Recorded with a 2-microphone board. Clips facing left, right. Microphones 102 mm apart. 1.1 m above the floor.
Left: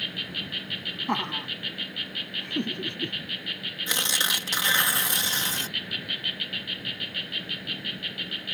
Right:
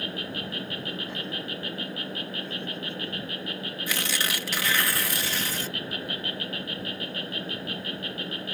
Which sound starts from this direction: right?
An insect, at 0.0 s.